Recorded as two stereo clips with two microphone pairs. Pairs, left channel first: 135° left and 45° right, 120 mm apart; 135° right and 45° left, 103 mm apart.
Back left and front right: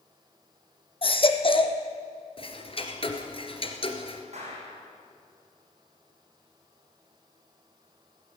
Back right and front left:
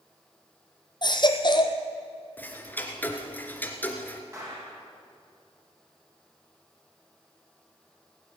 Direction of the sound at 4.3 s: 20° right.